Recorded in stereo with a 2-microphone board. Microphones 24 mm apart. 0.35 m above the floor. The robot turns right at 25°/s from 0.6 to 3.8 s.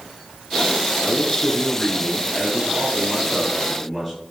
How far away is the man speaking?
About 6.5 m.